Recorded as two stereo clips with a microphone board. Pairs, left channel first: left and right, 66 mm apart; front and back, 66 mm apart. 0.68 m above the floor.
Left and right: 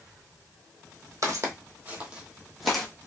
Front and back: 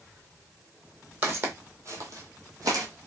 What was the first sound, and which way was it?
Footsteps, 120° right.